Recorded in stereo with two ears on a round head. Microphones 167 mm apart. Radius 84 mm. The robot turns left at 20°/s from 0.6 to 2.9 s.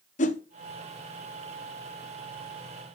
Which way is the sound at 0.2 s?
40° left (ahead or behind).